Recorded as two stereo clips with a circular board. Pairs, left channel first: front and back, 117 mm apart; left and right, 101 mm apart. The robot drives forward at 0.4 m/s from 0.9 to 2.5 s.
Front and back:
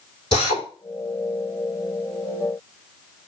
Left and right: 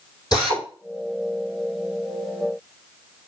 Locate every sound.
0.3 s a drill: 45° left, 6 m